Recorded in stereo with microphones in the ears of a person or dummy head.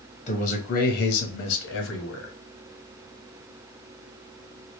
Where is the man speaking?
40° left (ahead or behind), 1.0 m; by 2.3 s 85° left, 1.3 m.